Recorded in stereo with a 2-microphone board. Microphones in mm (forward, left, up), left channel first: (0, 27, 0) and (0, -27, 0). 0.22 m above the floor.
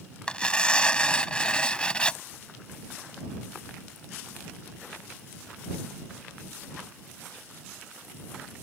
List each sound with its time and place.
0.3 s tearing paper: 20° left (ahead or behind)